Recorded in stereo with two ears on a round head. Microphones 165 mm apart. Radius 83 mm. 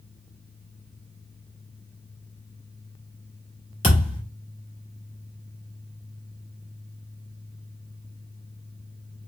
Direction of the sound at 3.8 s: 25° left (ahead or behind).